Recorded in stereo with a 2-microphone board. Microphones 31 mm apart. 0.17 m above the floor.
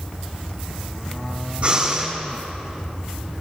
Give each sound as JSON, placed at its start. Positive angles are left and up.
{"t": 1.6, "sound": "breathing", "side_deg": -40, "distance_m": 5.5}